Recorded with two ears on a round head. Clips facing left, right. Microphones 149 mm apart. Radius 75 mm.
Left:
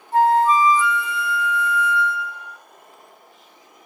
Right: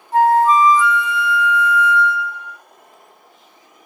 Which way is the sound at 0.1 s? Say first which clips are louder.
Right 3 dB; 65° right (ahead or behind).